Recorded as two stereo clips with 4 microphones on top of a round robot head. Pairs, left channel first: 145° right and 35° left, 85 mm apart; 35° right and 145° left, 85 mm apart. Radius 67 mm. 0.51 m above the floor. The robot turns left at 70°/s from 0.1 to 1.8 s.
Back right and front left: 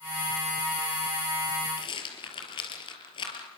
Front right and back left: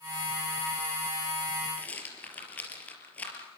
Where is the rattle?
110° right, 4 m.